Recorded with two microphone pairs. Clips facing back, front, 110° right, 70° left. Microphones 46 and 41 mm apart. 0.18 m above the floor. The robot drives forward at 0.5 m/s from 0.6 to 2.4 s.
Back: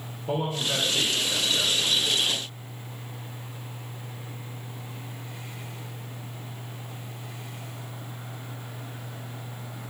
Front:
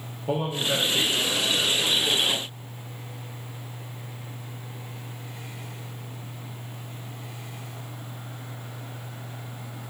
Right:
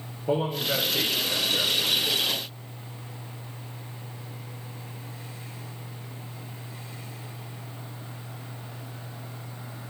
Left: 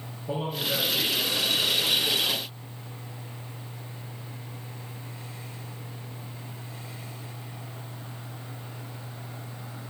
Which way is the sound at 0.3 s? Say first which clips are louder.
Front 2 dB, right 4 dB; 75° right.